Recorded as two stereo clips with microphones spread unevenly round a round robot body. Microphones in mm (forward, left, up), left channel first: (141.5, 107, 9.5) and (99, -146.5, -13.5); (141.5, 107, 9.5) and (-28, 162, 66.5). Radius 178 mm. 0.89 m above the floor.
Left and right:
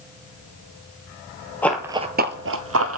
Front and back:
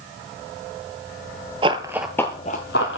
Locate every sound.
1.6 s running footsteps: 155° left, 1.1 m; by 3.0 s 75° right, 1.7 m